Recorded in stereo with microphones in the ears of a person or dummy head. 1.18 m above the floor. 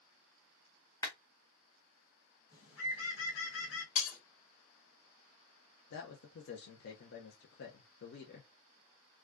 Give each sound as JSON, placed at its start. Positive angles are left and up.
{"t": 1.0, "sound": "a clap", "side_deg": 20, "distance_m": 0.6}
{"t": 2.5, "sound": "a bird", "side_deg": 75, "distance_m": 1.1}
{"t": 4.0, "sound": "breaking glass", "side_deg": 45, "distance_m": 1.2}
{"t": 5.9, "sound": "a man speaking", "side_deg": 55, "distance_m": 0.5}